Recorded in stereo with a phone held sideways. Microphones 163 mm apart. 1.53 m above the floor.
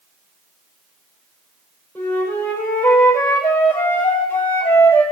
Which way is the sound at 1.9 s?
15° left (ahead or behind).